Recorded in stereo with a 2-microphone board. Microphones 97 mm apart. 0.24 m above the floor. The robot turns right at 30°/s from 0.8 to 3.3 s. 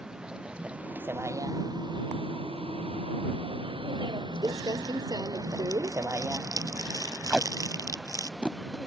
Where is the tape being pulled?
10° right (ahead or behind).